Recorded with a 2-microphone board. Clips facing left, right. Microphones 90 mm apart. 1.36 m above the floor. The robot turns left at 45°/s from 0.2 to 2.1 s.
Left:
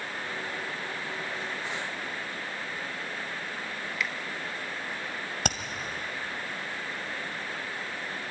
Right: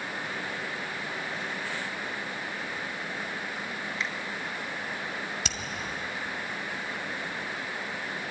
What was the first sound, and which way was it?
A finger snap, 30° right (ahead or behind).